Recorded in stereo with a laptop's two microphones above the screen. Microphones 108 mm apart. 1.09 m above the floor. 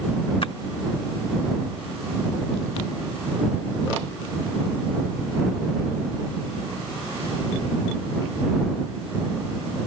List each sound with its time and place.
0.4 s a splash: 55° left (ahead or behind)